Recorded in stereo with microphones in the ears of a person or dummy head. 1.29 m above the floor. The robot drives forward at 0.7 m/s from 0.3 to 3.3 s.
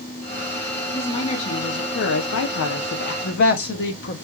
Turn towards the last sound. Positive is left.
turn(degrees=50)  # may be behind; listen again after turning